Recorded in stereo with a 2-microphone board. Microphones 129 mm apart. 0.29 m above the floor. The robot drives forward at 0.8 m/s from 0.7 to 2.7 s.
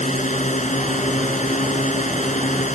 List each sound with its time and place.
0.0 s a drone: 70° left (ahead or behind)